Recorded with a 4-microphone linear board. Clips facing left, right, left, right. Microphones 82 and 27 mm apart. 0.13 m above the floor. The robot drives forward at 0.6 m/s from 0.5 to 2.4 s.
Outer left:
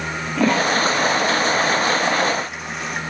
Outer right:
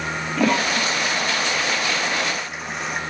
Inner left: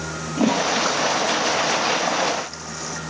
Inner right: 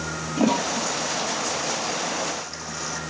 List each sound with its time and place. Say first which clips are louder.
0.4 s a toilet flushing: outer left 3 dB, inner left 3 dB; centre (ahead or behind), 0.9 m